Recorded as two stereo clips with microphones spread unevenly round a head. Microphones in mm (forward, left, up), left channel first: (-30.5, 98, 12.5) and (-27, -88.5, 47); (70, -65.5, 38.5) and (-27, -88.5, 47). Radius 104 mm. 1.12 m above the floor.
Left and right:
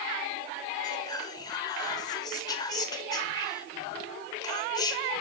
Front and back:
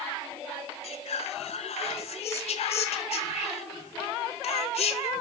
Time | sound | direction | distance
0.8 | whispering | 20° left | 1.1 m